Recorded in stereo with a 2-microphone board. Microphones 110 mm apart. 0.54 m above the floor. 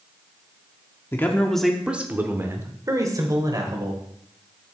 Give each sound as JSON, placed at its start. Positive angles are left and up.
{"t": 1.1, "sound": "a man speaking", "side_deg": 20, "distance_m": 1.2}